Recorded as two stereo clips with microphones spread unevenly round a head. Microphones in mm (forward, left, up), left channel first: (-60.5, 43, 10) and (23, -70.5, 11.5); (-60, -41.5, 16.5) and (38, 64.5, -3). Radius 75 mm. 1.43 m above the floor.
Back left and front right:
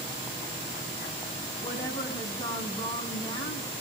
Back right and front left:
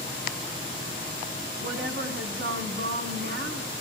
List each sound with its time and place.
1.6 s a woman speaking: 55° left, 8 m